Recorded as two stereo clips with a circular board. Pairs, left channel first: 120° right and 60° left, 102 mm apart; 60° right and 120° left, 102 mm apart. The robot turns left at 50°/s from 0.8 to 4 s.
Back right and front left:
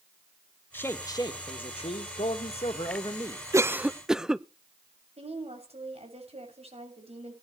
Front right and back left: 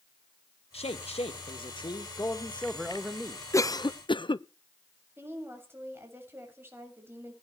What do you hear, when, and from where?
0.7 s a man speaking: 50° right, 2.0 m; by 3.4 s straight behind, 2.0 m
3.5 s a cough: straight ahead, 0.7 m; by 4.5 s 25° right, 0.7 m
5.2 s a woman speaking: 50° left, 7.5 m